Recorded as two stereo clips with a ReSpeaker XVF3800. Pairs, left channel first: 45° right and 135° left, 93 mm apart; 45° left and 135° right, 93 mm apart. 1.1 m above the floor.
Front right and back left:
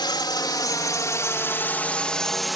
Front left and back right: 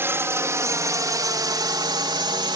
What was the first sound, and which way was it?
A drone, 75° right.